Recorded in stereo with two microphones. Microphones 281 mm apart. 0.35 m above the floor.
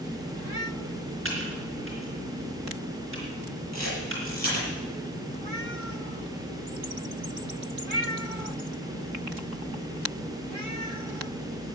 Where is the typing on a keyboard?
45° right (ahead or behind), 4.5 m.